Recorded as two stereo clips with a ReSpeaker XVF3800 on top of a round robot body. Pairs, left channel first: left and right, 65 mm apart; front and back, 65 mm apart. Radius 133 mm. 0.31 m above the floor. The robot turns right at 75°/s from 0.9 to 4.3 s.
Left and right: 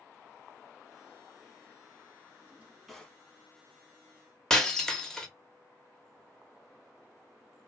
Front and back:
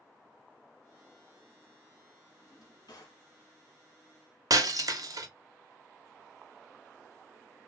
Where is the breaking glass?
170° left, 0.7 m.